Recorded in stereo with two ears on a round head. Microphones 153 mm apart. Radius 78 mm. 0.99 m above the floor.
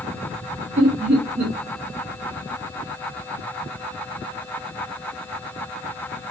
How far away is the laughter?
About 2.5 m.